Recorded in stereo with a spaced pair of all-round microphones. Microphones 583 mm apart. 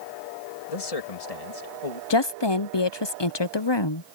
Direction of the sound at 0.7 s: 75° left (ahead or behind).